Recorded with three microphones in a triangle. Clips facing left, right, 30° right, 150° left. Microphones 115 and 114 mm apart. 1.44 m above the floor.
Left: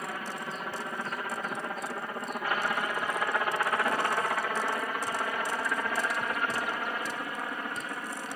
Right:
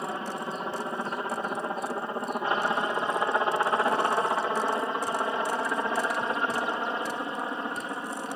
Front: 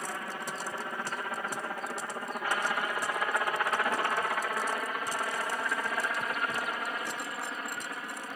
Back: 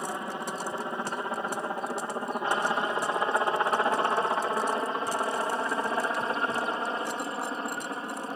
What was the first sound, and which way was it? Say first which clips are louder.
A helicopter: right 4 dB, back 4 dB; 150° right.